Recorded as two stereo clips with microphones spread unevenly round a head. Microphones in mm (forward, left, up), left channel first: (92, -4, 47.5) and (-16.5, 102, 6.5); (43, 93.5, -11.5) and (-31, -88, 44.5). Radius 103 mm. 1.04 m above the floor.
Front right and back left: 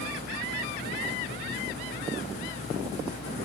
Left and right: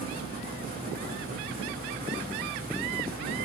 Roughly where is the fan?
Ahead right.